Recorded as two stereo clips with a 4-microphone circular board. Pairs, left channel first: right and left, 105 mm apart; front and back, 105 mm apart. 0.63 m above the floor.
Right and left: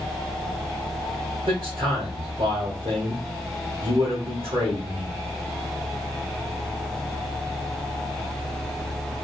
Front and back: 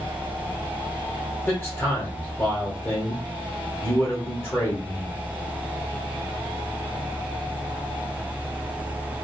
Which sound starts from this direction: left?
A man speaking, at 1.5 s.